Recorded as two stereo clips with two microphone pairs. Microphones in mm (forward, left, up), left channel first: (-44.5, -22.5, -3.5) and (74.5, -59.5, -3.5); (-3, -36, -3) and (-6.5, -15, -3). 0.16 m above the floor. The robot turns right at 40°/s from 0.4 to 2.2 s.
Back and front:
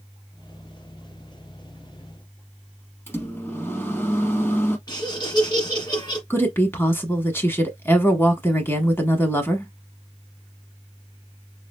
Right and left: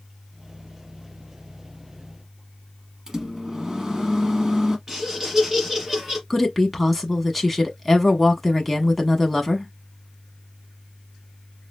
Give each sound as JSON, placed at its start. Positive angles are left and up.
{"t": 3.1, "sound": "a microwave", "azimuth_deg": 120, "distance_m": 0.9}
{"t": 4.9, "sound": "laughter", "azimuth_deg": 155, "distance_m": 1.4}
{"t": 6.3, "sound": "a woman speaking", "azimuth_deg": -175, "distance_m": 1.0}